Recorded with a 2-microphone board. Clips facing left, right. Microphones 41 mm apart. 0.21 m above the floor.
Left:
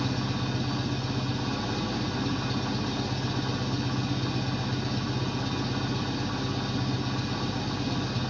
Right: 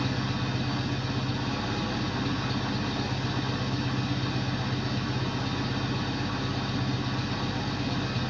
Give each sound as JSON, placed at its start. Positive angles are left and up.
{"t": 0.0, "sound": "an engine running", "side_deg": -40, "distance_m": 1.9}